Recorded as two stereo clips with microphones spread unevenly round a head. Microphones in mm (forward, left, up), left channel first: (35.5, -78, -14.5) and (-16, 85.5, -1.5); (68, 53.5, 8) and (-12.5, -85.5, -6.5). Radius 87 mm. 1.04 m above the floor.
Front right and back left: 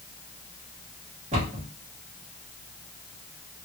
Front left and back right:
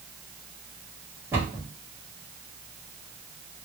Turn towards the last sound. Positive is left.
turn(degrees=160)